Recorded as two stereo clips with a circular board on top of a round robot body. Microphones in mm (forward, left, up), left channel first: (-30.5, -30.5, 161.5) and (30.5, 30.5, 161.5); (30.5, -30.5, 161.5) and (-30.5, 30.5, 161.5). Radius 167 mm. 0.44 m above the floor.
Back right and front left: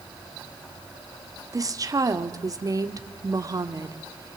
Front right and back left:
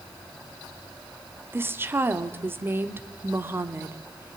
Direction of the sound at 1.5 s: 80° left.